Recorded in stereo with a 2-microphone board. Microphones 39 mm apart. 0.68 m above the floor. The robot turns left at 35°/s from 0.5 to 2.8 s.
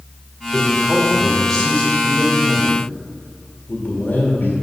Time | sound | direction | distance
0.5 | a man speaking | 150° right | 1.7 m